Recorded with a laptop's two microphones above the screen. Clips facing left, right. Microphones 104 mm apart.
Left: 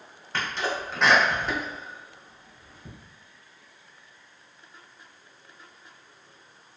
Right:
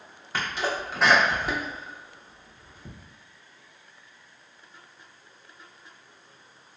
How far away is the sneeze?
About 0.6 m.